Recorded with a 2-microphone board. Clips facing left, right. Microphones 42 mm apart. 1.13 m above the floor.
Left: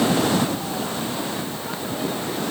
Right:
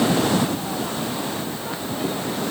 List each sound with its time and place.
Only background noise.